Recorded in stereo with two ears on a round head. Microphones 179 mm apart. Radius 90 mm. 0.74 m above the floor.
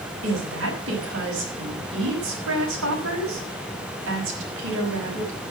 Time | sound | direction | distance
0.2 | a woman speaking | 75° right (ahead or behind) | 5.5 m